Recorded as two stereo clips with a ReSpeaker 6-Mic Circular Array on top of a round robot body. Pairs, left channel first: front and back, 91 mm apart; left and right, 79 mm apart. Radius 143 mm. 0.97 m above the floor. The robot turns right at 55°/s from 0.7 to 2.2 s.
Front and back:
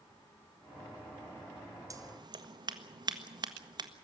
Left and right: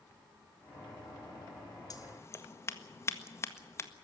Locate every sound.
1.9 s scissors: 125° left, 1.8 m; by 3.9 s 145° left, 1.8 m